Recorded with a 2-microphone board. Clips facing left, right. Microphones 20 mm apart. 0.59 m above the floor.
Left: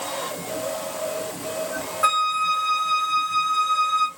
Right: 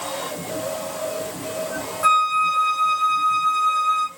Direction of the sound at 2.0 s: 35° left (ahead or behind).